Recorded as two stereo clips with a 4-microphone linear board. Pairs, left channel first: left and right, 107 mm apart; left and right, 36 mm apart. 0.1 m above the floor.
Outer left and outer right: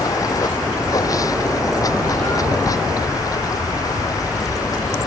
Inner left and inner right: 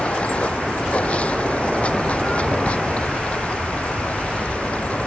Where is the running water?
35° left (ahead or behind).